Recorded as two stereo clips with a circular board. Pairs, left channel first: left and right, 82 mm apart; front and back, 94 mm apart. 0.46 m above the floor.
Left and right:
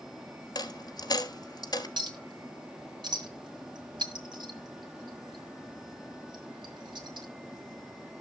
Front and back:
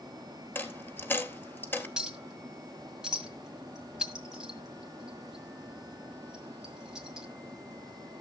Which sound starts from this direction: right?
A clink, at 2.0 s.